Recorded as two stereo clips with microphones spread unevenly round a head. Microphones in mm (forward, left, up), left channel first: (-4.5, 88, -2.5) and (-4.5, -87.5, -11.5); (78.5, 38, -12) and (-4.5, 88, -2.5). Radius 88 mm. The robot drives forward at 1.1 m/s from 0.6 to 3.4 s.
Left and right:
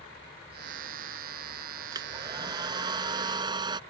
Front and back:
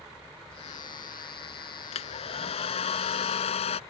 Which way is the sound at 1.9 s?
20° right.